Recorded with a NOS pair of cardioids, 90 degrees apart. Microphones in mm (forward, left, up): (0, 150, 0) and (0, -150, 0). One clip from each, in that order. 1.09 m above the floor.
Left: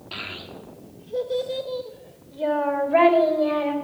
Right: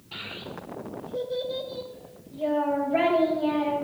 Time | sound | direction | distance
0.1 | a child speaking | 65° left | 1.4 m